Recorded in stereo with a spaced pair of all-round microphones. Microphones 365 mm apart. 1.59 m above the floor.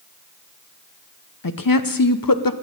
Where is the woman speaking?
65° left (ahead or behind), 0.8 m.